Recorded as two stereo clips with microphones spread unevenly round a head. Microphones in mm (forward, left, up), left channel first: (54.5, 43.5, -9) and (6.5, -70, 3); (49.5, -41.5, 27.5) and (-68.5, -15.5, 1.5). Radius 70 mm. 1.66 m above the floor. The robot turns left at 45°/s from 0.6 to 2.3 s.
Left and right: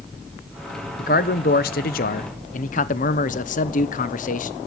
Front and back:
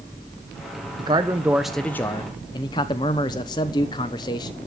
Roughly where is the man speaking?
Left.